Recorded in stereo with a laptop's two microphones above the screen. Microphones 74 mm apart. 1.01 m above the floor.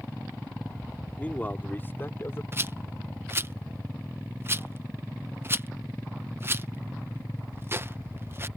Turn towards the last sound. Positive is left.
turn(degrees=-30)  # may be behind; listen again after turning